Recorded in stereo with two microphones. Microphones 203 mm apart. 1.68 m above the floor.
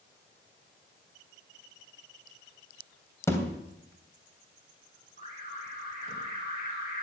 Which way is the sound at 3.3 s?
10° left (ahead or behind).